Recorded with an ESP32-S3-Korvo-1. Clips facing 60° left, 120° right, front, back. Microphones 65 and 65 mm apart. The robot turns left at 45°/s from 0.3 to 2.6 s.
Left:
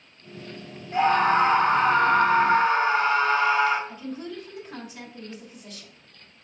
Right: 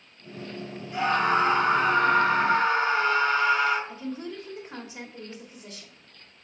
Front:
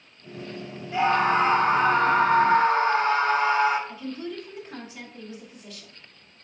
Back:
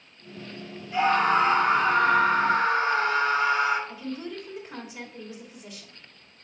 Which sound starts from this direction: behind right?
A woman speaking, at 3.9 s.